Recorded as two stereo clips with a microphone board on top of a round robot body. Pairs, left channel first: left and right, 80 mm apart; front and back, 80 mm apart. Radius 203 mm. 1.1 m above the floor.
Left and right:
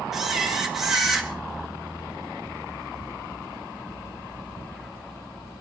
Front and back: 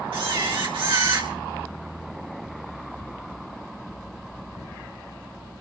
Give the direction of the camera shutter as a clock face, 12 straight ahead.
6 o'clock.